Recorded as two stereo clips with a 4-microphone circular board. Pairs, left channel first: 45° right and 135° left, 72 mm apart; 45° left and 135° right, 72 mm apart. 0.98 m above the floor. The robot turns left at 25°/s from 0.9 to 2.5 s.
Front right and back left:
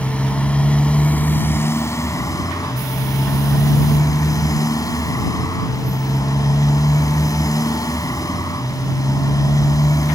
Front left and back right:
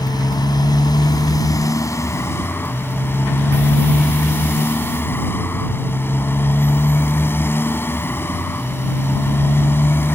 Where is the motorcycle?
30° left; by 10.2 s 10° right.